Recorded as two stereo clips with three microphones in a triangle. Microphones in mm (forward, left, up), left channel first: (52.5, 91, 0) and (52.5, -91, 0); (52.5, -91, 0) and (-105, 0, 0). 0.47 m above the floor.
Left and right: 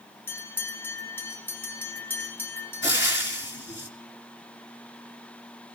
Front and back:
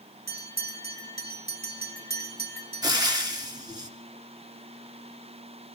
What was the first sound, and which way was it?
A bell, 170° left.